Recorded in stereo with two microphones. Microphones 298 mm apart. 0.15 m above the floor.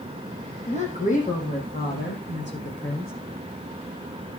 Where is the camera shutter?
No camera shutter in this recording.